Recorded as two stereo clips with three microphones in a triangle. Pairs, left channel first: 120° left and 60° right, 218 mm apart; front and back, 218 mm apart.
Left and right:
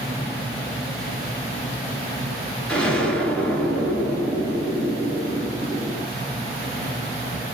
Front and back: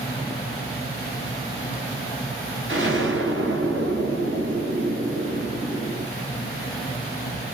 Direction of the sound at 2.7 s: 155° right.